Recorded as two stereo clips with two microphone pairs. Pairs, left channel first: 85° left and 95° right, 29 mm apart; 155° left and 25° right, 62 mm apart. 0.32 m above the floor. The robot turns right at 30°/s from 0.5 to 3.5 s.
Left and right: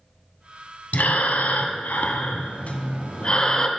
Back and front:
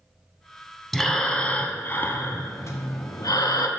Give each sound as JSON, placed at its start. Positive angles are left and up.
{"t": 0.9, "sound": "breathing", "azimuth_deg": 70, "distance_m": 0.6}